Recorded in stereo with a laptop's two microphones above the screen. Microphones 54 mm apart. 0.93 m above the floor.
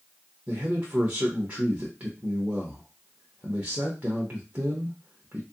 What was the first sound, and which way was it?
A man speaking, 35° right (ahead or behind).